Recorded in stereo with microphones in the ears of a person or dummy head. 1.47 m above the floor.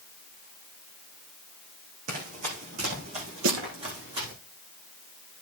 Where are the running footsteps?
50° right (ahead or behind), 4 m; by 4.3 s 30° right (ahead or behind), 4.5 m.